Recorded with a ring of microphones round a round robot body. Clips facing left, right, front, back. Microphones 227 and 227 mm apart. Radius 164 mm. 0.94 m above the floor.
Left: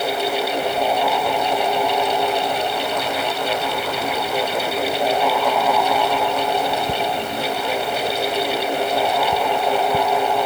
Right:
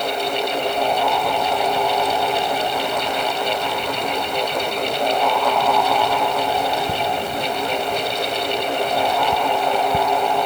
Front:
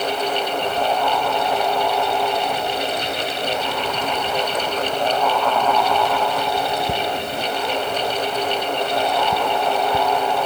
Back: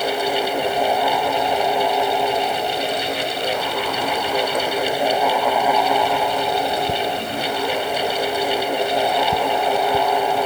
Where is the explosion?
No explosion in this recording.